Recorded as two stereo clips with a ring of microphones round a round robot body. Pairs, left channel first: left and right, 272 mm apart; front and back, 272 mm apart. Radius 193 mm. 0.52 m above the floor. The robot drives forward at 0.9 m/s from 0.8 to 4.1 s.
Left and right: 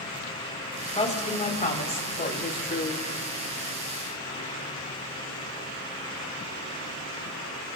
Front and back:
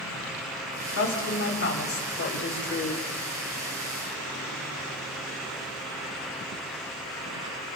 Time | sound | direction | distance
0.9 | a woman speaking | 25° left | 3.5 m